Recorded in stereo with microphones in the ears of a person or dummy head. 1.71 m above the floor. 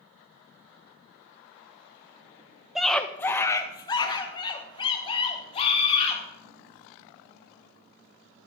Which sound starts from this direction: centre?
A scream, at 2.8 s.